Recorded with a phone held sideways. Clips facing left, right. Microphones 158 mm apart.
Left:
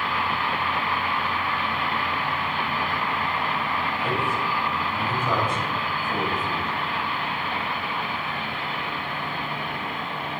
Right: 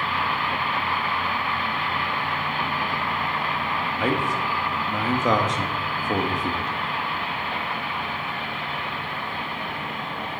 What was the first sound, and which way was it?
A man speaking, 85° right.